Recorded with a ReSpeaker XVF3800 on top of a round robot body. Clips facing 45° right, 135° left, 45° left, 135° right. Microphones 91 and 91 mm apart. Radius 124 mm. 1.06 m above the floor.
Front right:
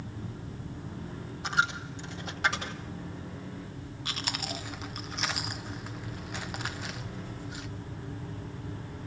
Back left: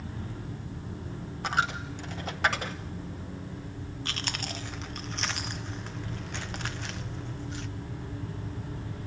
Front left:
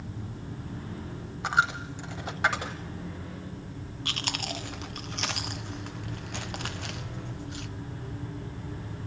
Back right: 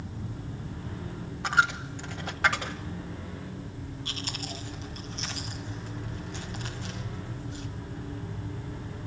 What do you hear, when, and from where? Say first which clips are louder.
1.4 s a dropped coin: even, back right 1 dB; 110° left, 0.9 m
4.0 s chewing: front right 1 dB, front left 6 dB; 35° left, 1.5 m